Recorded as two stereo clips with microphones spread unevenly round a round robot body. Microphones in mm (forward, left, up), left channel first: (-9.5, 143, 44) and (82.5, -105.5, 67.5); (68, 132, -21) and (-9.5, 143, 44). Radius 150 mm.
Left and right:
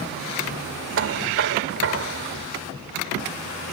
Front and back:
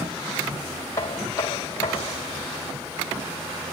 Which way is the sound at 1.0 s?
30° right.